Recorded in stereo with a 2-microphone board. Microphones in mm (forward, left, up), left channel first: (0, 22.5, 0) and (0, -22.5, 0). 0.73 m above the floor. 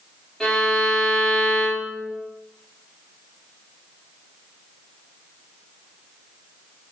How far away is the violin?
About 3.5 m.